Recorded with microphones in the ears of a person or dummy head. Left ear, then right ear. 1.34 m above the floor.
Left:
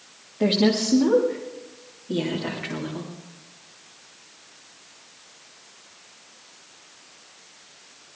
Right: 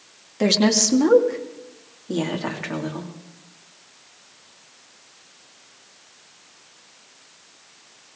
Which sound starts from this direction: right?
A woman speaking, at 0.4 s.